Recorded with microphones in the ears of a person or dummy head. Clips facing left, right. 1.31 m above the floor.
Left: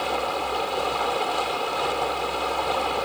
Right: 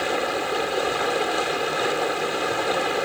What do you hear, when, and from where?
0.0 s running water: 25° right (ahead or behind)